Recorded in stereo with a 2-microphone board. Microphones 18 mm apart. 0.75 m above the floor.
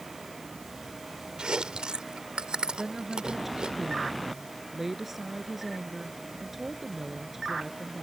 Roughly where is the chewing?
Right.